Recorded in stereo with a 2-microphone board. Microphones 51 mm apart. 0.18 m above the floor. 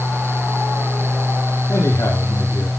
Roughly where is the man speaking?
Left.